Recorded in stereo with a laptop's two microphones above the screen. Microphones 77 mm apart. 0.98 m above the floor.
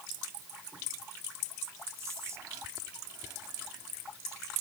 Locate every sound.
2.0 s whispering: 45° right (ahead or behind)